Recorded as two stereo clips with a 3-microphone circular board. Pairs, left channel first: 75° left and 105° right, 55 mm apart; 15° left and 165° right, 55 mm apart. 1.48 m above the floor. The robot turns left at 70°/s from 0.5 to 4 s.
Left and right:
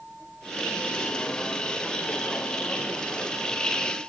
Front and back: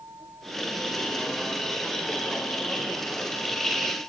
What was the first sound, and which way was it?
A vehicle, 175° left.